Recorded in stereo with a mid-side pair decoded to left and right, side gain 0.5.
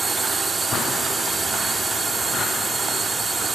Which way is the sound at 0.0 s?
20° right.